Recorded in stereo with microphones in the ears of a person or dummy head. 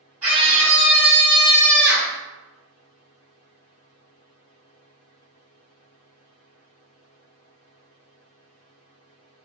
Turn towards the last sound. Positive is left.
turn(degrees=-5)  # may be behind; listen again after turning